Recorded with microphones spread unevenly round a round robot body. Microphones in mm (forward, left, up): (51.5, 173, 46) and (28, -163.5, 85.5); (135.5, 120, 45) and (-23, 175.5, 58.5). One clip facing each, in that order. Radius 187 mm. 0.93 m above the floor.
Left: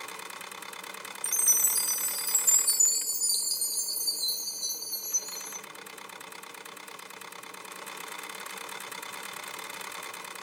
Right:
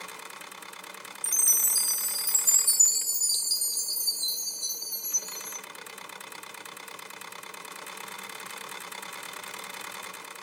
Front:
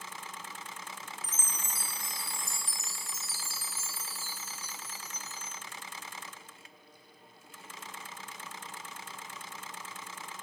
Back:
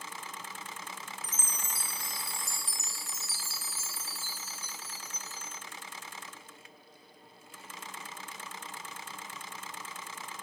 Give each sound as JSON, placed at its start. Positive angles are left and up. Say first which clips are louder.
{"t": 1.2, "sound": "a chime", "louder": "left 1 dB, even", "azimuth_deg": -155, "distance_m": 0.6}